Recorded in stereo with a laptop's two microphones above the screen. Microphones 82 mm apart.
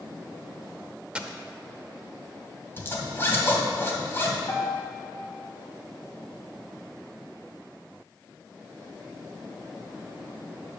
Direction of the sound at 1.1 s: 15° right (ahead or behind).